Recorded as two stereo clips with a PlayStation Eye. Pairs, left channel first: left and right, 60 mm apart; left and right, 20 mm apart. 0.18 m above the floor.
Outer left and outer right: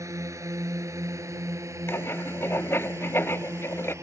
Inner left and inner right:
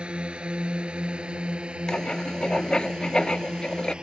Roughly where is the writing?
Left.